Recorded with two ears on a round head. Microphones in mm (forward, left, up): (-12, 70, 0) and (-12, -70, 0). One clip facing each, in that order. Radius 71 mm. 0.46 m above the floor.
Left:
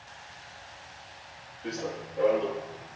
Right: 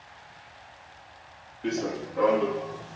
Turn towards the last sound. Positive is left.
turn(degrees=-75)  # may be behind; listen again after turning